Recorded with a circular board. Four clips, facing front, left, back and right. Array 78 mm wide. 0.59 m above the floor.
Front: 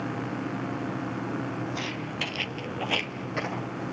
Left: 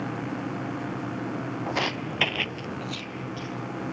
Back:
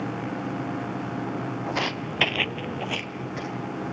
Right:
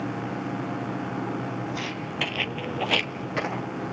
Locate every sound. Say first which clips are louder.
1.7 s footsteps: left 3 dB, back 5 dB; 135° left, 1.4 m; by 3.7 s 70° right, 1.8 m